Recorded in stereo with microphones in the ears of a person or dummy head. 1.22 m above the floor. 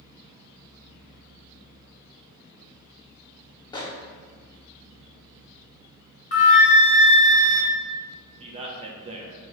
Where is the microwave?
25° left (ahead or behind), 0.7 m.